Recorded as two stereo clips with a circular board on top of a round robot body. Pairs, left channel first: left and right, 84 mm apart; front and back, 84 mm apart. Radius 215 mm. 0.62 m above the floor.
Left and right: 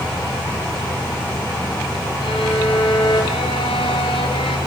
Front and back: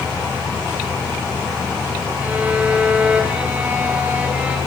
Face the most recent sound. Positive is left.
turn(degrees=105)